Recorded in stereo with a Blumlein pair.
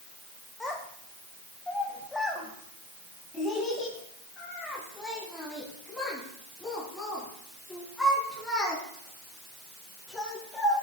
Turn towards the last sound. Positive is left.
turn(degrees=5)